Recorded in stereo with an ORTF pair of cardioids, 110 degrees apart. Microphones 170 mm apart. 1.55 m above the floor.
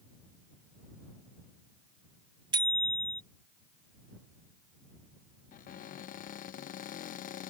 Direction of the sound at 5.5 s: 55° left.